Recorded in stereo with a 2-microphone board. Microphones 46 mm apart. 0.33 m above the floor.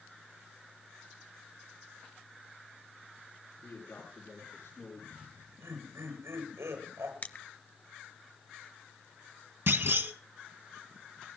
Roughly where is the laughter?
Right.